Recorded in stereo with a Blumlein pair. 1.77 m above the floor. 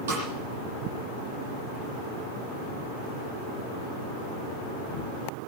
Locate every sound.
0.1 s a snare drum: 55° right, 9.5 m